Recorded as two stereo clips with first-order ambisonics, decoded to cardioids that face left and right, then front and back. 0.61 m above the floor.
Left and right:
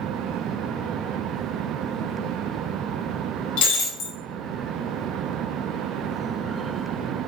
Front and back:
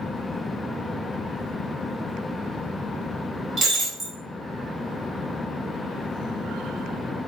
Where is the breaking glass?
105° left, 1.0 m.